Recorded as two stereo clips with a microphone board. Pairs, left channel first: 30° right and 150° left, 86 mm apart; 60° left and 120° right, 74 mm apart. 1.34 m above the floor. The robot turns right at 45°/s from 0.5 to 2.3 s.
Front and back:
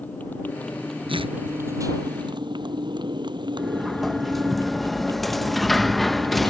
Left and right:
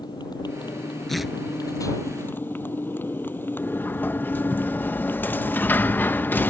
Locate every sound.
0.0 s a motorcycle: 40° left; by 6.5 s 120° left
1.1 s tearing paper: 145° left; by 1.4 s 155° left
3.6 s a sliding door: 55° left